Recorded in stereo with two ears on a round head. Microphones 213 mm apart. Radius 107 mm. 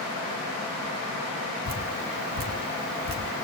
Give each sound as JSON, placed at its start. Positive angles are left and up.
{"t": 1.6, "sound": "dripping", "side_deg": -40, "distance_m": 1.9}